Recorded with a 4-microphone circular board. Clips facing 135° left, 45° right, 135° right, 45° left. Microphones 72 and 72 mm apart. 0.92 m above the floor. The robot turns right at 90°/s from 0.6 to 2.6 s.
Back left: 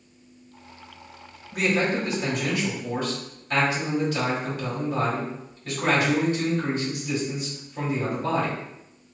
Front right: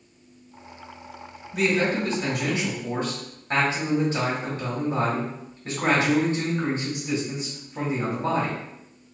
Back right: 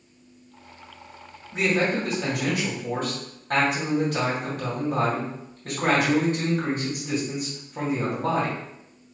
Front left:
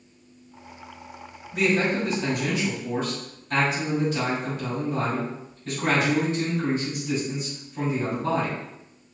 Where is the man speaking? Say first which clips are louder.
Front right 1 dB, even; 160° left, 2 m; by 8.6 s 105° right, 2 m.